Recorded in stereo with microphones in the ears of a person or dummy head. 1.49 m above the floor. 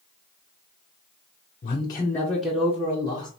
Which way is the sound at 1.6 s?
40° left (ahead or behind).